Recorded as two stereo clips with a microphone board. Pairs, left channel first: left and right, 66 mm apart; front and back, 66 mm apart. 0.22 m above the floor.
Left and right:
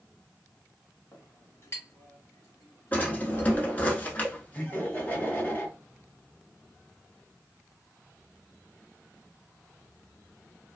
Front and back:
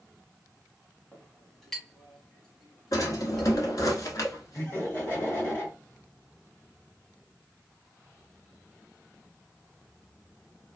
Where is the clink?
80° left, 0.9 m.